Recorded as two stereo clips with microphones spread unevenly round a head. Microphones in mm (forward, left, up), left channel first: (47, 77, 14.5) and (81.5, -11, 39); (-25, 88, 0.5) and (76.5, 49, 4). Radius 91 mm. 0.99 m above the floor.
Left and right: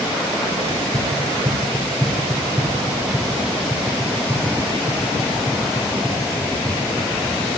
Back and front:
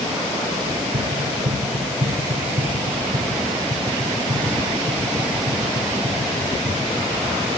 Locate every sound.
0.7 s running footsteps: 15° right, 4.5 m; by 7.3 s 25° left, 12 m